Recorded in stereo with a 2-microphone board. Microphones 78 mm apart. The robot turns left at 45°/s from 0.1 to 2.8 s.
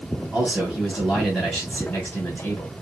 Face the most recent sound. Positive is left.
turn(degrees=110)